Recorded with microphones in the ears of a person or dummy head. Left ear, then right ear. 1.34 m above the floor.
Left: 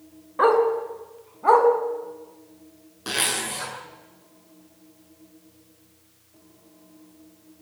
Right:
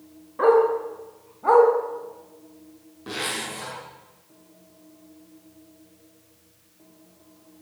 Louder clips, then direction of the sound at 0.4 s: Right 1 dB; 30° left (ahead or behind).